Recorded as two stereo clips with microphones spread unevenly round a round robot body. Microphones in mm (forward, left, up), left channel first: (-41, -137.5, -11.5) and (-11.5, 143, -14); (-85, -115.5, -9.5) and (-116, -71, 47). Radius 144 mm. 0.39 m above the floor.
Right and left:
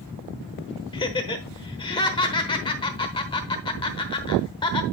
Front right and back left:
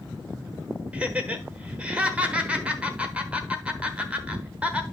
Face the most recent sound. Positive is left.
turn(degrees=-35)